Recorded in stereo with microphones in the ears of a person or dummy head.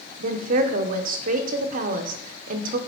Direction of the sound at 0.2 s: 50° right (ahead or behind).